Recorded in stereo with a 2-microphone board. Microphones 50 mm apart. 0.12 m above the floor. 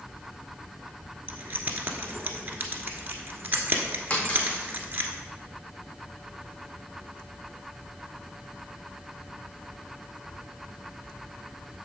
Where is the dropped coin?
30° left (ahead or behind), 2.5 m.